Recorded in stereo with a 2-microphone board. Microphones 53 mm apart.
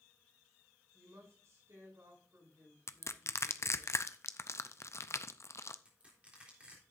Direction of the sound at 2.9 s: 60° left (ahead or behind).